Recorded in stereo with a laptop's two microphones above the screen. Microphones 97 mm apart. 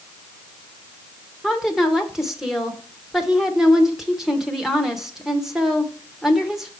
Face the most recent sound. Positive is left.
turn(degrees=-5)  # may be behind; listen again after turning